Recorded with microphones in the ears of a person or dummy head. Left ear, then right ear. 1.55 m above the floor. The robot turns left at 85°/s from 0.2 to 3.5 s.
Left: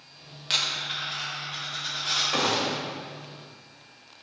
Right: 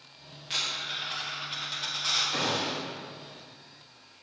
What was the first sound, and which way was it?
A dropped coin, 40° left.